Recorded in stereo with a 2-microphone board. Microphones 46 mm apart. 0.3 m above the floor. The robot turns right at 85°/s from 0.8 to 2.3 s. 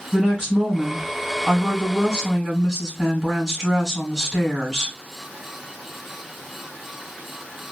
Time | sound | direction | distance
0.1 | a woman speaking | 150° right | 1.6 m